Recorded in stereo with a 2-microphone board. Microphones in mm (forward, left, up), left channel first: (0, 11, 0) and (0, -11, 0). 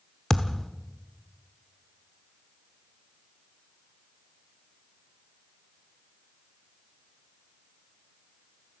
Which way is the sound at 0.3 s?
15° left (ahead or behind).